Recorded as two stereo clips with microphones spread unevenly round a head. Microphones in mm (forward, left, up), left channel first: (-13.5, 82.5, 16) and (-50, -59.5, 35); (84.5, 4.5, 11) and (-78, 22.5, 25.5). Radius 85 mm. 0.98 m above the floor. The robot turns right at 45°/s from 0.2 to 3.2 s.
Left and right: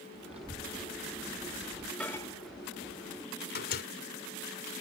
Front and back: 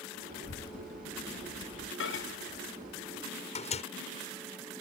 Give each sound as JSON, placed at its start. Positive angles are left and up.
{"t": 0.3, "sound": "a child speaking", "azimuth_deg": -50}
{"t": 2.0, "sound": "a microwave", "azimuth_deg": -10}